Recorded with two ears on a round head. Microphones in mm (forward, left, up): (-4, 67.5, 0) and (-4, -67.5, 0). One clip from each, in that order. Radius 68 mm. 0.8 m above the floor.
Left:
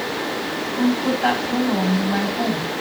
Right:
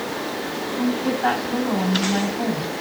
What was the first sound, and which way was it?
A woman speaking, 75° left (ahead or behind).